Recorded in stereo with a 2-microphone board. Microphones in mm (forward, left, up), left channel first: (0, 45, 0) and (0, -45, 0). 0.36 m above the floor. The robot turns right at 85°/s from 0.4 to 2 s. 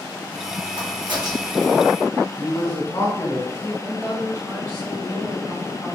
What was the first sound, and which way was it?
A crack, 70° right (ahead or behind).